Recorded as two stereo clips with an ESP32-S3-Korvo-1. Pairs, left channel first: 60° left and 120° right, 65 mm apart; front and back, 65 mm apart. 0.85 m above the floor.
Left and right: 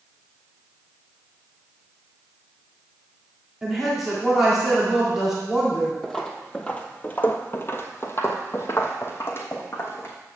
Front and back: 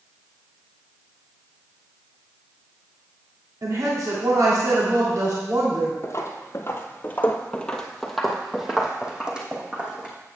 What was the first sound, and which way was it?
A woman speaking, 155° left.